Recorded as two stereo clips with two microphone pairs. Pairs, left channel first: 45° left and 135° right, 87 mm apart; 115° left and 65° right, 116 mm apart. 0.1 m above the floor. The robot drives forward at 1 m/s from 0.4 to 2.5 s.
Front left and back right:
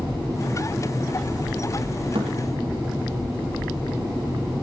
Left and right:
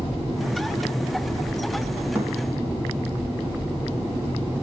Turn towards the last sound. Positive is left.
turn(degrees=-145)